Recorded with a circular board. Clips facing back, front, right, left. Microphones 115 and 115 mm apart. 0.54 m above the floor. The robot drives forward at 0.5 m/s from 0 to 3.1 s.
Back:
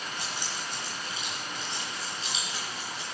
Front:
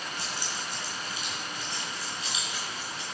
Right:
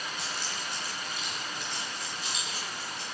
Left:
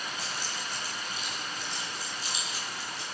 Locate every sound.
0.2 s keys jangling: 110° right, 4.5 m; by 3.0 s 125° right, 5 m